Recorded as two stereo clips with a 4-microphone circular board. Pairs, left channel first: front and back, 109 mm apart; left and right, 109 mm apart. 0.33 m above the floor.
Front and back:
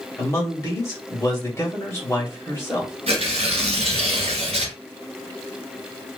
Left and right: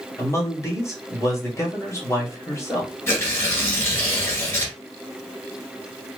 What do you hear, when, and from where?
0.2 s a man speaking: 45° left, 1.6 m
3.1 s tearing paper: 160° left, 1.3 m